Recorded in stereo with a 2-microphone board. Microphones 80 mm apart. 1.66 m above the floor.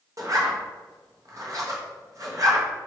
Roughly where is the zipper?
Right.